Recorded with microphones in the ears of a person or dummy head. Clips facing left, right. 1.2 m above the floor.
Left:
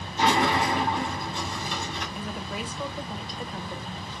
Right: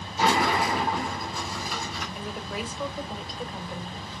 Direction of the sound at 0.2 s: Centre (ahead or behind).